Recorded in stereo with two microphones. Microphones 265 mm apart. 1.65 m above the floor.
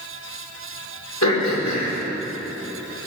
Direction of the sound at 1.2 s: 85° left.